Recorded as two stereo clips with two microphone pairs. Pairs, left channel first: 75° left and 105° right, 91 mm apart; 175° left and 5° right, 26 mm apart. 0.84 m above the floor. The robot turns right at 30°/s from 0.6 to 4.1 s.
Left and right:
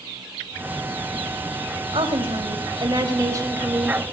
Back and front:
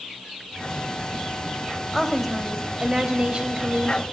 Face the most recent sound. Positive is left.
turn(degrees=-30)